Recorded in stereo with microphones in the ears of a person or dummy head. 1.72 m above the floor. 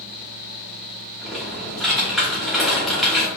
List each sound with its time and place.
1.2 s typing on a keyboard: 5° left (ahead or behind), 0.8 m